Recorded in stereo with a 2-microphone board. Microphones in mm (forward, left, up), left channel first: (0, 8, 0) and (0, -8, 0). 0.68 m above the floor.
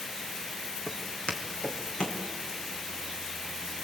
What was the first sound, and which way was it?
Footsteps, 75° left (ahead or behind).